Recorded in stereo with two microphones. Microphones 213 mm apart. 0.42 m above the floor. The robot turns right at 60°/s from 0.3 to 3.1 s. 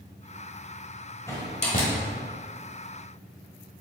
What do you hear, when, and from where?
1.3 s a door slam: 15° left (ahead or behind), 1.3 m; by 1.9 s 50° left (ahead or behind), 1.3 m